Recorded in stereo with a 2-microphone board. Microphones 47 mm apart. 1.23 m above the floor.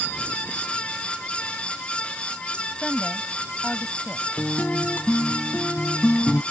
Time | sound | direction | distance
2.8 | a woman speaking | 5° left (ahead or behind) | ?
4.4 | a guitar | 35° left (ahead or behind) | ?